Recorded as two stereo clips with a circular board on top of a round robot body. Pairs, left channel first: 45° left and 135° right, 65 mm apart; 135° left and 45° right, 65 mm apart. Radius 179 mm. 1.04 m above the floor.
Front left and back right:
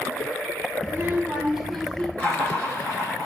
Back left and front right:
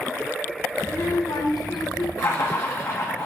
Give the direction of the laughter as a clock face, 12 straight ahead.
8 o'clock.